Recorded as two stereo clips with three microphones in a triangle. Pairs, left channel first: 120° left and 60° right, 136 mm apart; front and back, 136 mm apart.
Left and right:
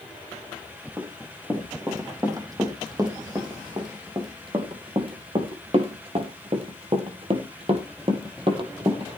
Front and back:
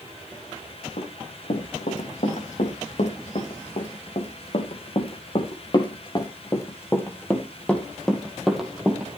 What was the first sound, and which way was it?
Running footsteps, 5° left.